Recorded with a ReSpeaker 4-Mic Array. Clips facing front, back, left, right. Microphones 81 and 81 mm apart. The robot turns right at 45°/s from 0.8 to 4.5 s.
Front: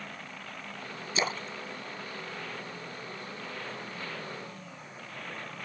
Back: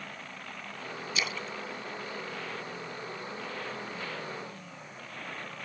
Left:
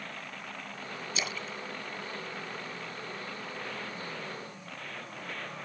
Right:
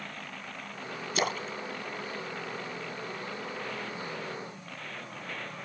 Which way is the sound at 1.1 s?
60° right.